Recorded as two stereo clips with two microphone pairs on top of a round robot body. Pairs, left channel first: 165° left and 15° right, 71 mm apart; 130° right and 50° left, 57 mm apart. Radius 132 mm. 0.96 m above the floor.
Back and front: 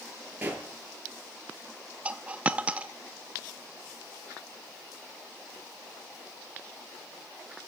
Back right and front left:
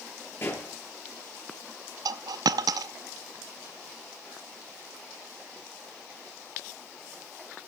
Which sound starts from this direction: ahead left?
A dropped coin, at 2.0 s.